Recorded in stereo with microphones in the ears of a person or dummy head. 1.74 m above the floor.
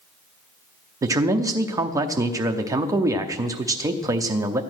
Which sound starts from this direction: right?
A man speaking, at 1.0 s.